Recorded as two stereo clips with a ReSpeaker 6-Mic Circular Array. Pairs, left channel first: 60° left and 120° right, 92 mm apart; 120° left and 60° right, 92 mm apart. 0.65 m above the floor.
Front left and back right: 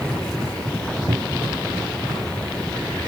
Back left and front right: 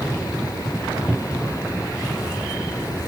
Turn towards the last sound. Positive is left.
turn(degrees=-145)